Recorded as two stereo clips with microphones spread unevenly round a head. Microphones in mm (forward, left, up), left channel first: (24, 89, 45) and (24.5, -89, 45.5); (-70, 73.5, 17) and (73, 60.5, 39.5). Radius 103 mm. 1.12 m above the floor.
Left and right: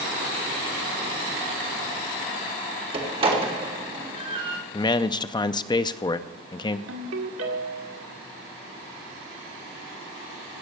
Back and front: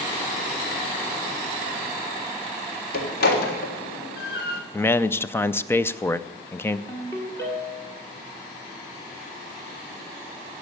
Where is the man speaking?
135° left, 0.5 m.